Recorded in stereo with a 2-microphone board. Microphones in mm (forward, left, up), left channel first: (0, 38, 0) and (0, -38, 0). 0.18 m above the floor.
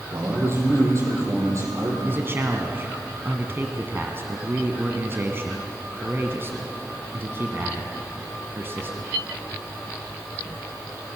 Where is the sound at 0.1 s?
40° right (ahead or behind), 6 m.